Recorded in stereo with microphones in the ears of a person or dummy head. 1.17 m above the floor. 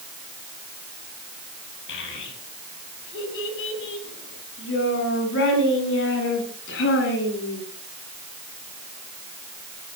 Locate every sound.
1.9 s a child speaking: 70° left (ahead or behind), 7 m